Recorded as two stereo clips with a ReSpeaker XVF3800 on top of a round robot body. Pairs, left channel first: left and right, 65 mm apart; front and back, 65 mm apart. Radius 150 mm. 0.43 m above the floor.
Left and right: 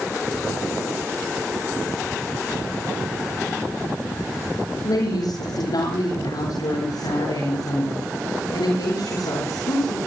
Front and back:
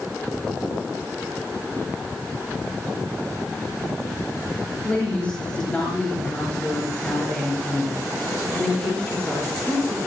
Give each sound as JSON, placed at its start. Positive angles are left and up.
{"t": 4.8, "sound": "a woman speaking", "azimuth_deg": 75, "distance_m": 8.5}